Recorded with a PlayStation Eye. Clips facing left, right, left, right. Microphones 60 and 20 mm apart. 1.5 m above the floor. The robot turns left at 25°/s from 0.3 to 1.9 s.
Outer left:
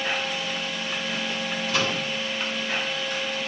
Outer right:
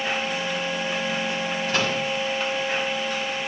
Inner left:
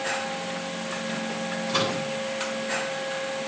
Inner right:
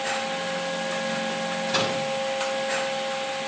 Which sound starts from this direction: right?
A microwave, at 1.7 s.